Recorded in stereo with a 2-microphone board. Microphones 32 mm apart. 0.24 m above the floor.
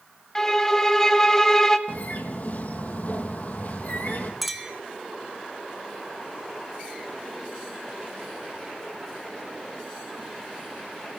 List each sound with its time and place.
0.3 s a violin: 15° left (ahead or behind), 1.1 m
1.9 s a bird: 55° left (ahead or behind), 1.8 m
4.4 s a clink: centre (ahead or behind), 1.6 m